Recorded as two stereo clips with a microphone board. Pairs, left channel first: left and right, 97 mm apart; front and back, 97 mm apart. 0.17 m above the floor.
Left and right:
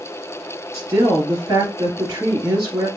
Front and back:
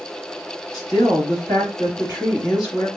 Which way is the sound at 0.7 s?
40° right.